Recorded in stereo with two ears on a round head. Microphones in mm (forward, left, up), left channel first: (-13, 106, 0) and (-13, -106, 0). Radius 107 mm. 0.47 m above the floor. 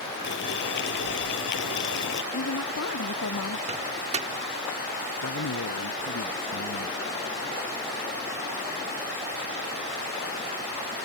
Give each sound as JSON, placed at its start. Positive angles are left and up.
{"t": 0.2, "sound": "boiling", "side_deg": 50}
{"t": 2.3, "sound": "a woman speaking", "side_deg": 60}
{"t": 3.7, "sound": "a microwave", "side_deg": -30}
{"t": 5.2, "sound": "a man speaking", "side_deg": 70}